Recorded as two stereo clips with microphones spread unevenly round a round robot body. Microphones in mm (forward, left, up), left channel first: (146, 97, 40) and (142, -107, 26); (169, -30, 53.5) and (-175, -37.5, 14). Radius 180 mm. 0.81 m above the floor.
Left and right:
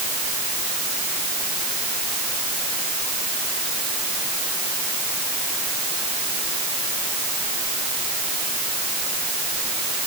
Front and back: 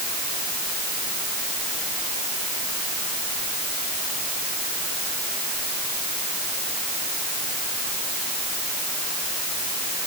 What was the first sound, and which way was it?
Only background noise.